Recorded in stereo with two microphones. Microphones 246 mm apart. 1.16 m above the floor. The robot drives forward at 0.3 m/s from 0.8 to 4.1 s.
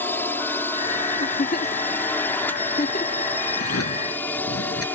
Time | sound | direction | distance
0.0 | a drone | 10° left (ahead or behind) | ?
1.2 | a giggle | 45° left (ahead or behind) | ?
3.6 | a drawer | 70° left (ahead or behind) | ?